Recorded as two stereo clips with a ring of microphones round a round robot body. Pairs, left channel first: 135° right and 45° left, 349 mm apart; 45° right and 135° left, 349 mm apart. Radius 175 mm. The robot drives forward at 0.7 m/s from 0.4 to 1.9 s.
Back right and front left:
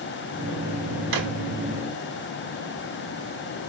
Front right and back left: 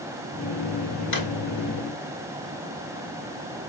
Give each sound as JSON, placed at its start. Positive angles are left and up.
{"t": 1.1, "sound": "a drawer", "azimuth_deg": 15, "distance_m": 1.7}